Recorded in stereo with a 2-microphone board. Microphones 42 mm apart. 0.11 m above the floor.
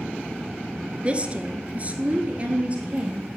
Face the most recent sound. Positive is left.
turn(degrees=-30)  # may be behind; listen again after turning